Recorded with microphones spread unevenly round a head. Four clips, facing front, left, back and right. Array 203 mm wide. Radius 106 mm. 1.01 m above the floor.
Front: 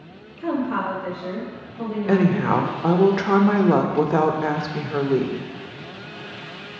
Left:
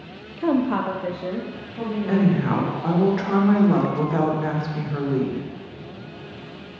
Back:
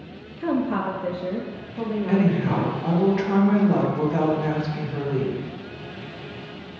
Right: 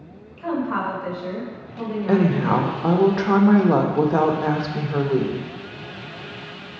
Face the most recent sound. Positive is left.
turn(degrees=-40)